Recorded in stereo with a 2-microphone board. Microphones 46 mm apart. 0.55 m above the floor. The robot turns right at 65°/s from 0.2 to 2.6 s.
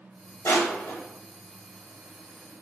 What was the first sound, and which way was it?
Crushing, 85° left.